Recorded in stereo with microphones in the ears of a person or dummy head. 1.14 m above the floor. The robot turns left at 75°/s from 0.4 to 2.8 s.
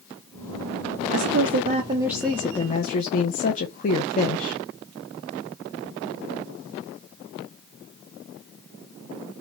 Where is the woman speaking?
105° right, 0.9 m; by 4.6 s 130° left, 0.9 m.